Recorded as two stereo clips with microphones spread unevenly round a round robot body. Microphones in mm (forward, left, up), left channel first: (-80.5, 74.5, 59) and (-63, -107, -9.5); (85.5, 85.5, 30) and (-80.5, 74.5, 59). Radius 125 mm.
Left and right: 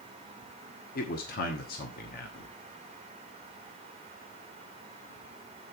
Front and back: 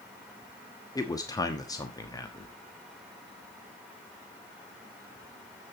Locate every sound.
0.9 s a man speaking: 45° left, 1.2 m